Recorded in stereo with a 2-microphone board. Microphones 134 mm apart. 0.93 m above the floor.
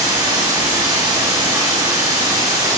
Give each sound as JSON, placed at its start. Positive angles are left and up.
{"t": 0.0, "sound": "running water", "side_deg": -30, "distance_m": 0.8}